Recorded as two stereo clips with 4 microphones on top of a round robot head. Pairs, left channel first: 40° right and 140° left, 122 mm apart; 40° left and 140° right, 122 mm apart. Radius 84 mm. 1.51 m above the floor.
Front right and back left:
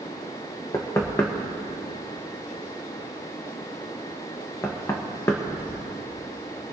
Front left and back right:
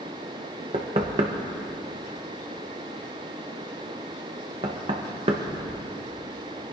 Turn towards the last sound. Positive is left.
turn(degrees=-110)